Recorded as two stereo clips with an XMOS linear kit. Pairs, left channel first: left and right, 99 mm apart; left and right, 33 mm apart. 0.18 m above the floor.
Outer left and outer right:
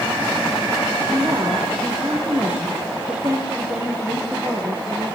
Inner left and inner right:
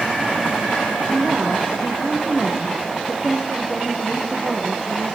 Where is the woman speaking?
15° right (ahead or behind), 5 m.